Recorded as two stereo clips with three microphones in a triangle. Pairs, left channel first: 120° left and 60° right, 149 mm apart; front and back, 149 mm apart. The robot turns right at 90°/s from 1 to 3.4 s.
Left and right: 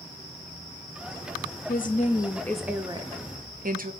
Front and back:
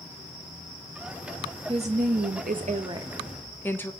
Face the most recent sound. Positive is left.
turn(degrees=-75)